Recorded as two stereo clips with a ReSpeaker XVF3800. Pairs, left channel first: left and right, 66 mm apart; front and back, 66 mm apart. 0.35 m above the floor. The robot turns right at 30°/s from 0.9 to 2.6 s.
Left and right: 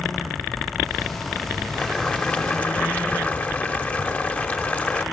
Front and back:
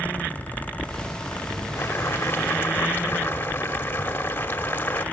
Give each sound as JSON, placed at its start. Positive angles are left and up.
{"t": 1.8, "sound": "boiling", "azimuth_deg": 15, "distance_m": 1.5}